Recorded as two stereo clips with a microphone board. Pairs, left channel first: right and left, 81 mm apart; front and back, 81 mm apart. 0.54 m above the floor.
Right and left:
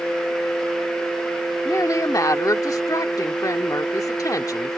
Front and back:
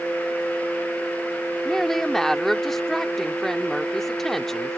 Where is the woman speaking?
85° right.